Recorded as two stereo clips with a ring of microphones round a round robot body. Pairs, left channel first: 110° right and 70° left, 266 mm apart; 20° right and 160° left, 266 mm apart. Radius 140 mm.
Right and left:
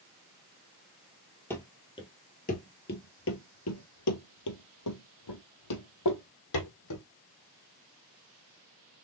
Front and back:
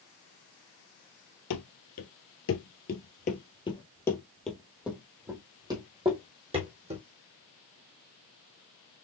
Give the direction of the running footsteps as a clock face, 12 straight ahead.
1 o'clock.